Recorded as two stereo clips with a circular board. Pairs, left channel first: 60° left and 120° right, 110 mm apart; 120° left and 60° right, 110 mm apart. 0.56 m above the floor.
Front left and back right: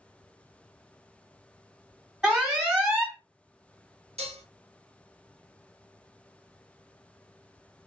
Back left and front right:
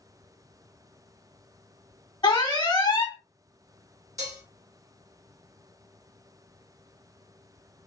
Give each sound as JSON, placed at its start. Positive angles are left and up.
{"t": 2.2, "sound": "an alarm", "azimuth_deg": 155, "distance_m": 1.6}
{"t": 4.2, "sound": "dishes clattering", "azimuth_deg": -120, "distance_m": 1.0}